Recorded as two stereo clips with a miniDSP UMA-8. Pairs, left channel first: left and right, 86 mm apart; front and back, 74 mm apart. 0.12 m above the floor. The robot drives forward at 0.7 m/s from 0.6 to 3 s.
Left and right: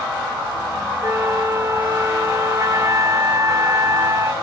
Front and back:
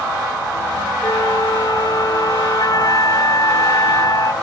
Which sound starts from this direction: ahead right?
A flute, at 1.0 s.